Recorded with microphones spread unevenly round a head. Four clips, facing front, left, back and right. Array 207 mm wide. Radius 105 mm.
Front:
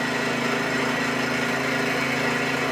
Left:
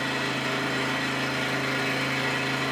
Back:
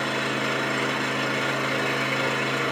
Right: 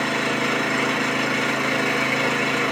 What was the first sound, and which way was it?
An engine running, 60° right.